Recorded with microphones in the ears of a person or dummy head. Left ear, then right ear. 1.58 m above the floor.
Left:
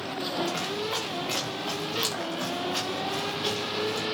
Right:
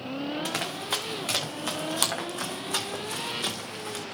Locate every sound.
0.5 s running footsteps: 75° right (ahead or behind), 5.5 m; by 4.0 s 60° right (ahead or behind), 5 m